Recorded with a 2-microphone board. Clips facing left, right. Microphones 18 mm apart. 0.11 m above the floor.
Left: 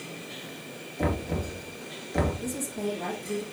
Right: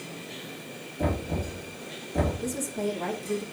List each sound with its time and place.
1.0 s knocking: 35° left (ahead or behind), 1.8 m
2.4 s a woman speaking: 5° right (ahead or behind), 3 m